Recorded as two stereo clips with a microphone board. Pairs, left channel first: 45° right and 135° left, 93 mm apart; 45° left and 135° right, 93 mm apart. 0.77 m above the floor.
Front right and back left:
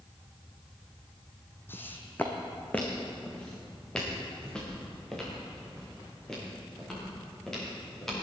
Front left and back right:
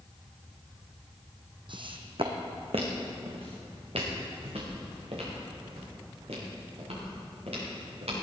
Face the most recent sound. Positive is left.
turn(degrees=-130)